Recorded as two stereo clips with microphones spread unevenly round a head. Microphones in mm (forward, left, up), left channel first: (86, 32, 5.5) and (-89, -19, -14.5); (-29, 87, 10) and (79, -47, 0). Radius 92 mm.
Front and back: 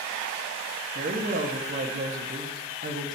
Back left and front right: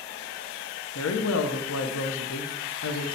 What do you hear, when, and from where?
0.9 s a woman speaking: 150° left, 0.9 m